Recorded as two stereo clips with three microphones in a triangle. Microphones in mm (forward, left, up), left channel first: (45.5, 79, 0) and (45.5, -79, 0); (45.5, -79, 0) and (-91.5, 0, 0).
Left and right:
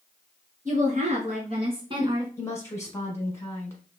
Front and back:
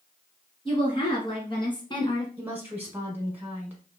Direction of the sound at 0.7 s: 80° right.